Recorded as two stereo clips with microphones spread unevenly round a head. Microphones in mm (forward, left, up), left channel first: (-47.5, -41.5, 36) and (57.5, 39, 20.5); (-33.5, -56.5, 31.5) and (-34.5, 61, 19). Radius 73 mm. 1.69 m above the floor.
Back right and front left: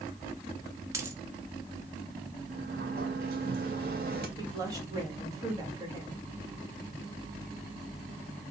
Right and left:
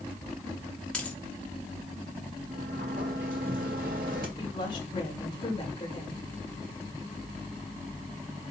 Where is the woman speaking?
30° right, 3.5 m.